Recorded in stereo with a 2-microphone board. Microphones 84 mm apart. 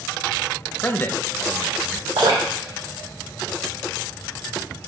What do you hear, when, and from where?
0.8 s a man speaking: 20° left (ahead or behind), 0.8 m
2.2 s dripping: 70° right (ahead or behind), 3 m